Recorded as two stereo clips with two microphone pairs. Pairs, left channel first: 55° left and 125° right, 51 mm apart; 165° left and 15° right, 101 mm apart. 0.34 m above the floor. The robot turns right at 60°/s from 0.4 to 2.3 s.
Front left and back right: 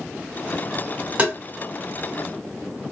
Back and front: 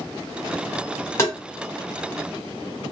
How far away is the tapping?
About 1.7 m.